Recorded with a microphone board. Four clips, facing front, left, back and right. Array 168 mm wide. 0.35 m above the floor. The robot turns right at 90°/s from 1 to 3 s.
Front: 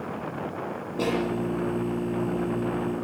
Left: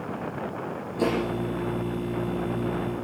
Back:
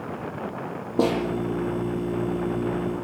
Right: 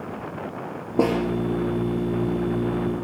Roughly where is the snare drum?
Behind right.